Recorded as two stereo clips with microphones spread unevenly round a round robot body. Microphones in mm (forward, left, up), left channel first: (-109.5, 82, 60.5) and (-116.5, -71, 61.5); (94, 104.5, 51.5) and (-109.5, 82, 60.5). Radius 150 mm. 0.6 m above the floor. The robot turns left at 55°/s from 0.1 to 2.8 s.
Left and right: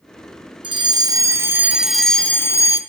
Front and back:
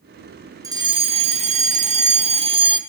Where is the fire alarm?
110° right, 1.7 m; by 2.8 s 130° left, 1.7 m.